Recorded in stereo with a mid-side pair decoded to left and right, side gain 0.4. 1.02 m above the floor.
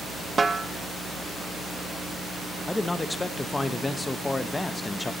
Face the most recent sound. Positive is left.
turn(degrees=25)